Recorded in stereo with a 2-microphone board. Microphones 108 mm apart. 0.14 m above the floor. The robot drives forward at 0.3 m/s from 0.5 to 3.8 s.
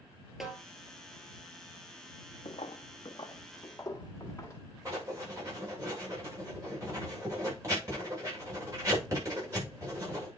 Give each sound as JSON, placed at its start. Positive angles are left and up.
{"t": 0.4, "sound": "a snare drum", "side_deg": 0, "distance_m": 2.5}
{"t": 2.5, "sound": "footsteps", "side_deg": 80, "distance_m": 0.7}
{"t": 4.8, "sound": "writing", "side_deg": -30, "distance_m": 7.5}